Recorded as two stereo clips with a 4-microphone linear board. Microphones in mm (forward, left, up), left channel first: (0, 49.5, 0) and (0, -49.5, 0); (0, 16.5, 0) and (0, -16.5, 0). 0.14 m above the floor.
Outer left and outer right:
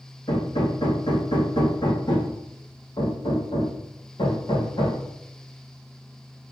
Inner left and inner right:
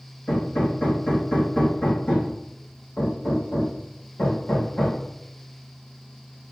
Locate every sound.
0.3 s hammering: 50° left (ahead or behind), 4.5 m